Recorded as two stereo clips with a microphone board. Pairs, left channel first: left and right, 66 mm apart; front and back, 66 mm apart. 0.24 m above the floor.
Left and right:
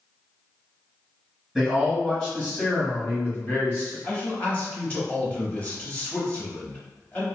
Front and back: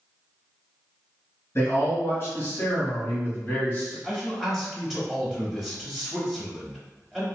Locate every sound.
1.6 s a man speaking: straight ahead, 1.8 m; by 3.9 s 55° left, 2 m
4.0 s a man speaking: 95° left, 1.0 m